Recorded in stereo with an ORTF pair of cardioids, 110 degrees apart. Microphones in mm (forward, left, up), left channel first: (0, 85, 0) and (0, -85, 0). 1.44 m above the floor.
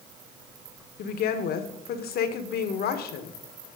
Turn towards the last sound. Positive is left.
turn(degrees=65)